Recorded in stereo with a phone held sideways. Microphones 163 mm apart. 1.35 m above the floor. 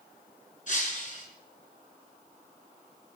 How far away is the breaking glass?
About 6 m.